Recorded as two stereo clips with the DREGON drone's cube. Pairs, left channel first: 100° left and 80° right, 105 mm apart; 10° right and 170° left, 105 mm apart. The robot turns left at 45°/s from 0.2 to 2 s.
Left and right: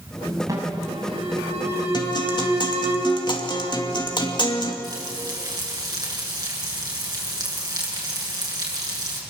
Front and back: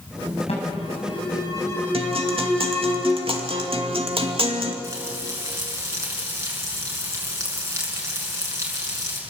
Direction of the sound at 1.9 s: 145° left.